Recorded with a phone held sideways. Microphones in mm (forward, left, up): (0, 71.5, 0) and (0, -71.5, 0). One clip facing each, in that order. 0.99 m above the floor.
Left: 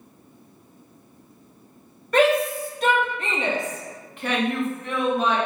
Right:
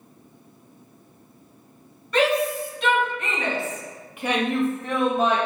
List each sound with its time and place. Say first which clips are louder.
2.1 s a shout: left 2 dB; 55° left (ahead or behind), 1.1 m; by 5.4 s 45° right (ahead or behind), 0.9 m